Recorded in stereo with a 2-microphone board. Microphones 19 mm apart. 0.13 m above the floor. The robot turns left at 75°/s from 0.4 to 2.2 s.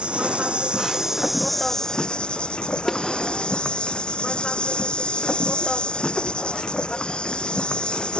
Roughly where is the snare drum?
Centre.